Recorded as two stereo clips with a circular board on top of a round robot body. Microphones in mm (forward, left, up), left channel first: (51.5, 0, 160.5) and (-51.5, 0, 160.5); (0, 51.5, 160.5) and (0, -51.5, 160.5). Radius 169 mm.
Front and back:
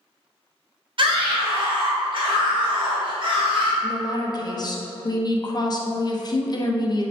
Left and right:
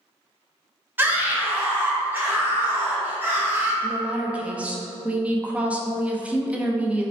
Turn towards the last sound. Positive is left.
turn(degrees=-20)